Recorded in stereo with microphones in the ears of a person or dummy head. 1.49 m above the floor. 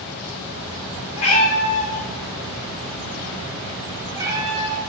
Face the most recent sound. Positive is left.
turn(degrees=-25)  # may be behind; listen again after turning